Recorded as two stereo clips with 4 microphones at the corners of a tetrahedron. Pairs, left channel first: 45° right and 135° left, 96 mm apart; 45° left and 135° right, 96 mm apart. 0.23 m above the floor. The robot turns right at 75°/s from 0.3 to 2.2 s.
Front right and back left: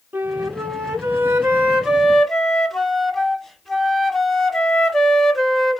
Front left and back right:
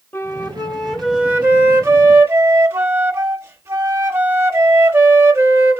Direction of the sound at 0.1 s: 90° left.